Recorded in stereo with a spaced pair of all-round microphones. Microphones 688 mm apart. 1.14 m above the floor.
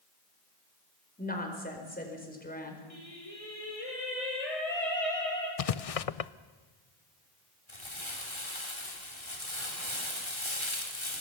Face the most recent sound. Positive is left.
turn(degrees=40)  # may be behind; listen again after turning